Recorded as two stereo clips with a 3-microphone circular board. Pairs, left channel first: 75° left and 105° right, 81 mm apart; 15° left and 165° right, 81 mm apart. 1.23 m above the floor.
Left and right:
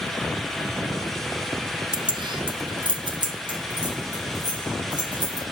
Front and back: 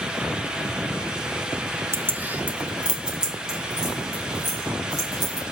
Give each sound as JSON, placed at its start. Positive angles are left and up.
{"t": 1.9, "sound": "keys jangling", "azimuth_deg": -110, "distance_m": 0.5}